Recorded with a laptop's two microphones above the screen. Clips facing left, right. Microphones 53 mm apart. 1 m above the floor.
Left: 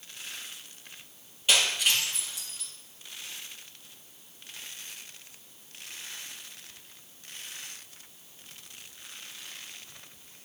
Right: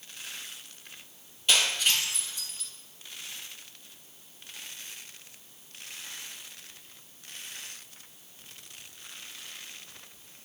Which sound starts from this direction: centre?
Breaking glass, at 1.5 s.